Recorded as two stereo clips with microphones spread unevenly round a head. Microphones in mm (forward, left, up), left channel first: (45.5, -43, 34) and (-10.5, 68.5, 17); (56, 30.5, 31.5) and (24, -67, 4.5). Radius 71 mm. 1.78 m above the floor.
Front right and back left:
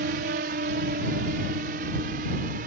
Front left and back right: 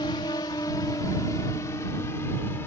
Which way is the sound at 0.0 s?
135° left.